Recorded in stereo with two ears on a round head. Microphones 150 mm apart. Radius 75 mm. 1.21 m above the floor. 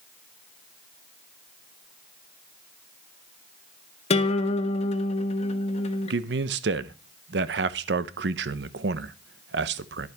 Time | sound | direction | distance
4.1 | a guitar | 40° left (ahead or behind) | 1.2 m
6.1 | a man speaking | 75° right (ahead or behind) | 0.8 m